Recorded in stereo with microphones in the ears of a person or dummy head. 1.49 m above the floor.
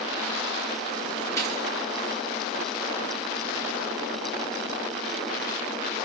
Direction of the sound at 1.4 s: 15° left (ahead or behind).